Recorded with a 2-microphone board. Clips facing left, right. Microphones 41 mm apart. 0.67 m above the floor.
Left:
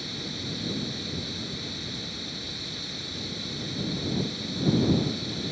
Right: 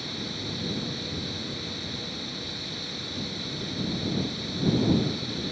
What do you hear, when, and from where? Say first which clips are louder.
0.0 s running water: right 1 dB; 5° right (ahead or behind)